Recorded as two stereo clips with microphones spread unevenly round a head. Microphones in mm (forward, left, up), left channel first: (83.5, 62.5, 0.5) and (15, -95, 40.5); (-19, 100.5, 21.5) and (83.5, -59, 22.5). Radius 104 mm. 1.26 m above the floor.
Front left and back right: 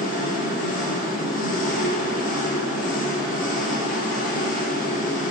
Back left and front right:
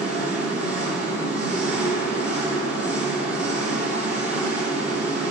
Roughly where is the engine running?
Ahead left.